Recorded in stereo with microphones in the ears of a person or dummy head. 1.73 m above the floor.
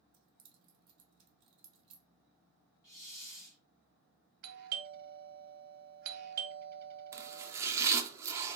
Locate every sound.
0.1 s keys jangling: 35° right (ahead or behind), 0.9 m
2.8 s a hiss: 20° left (ahead or behind), 2 m
4.4 s a doorbell: 55° right (ahead or behind), 0.9 m
7.1 s chopping: 20° right (ahead or behind), 0.7 m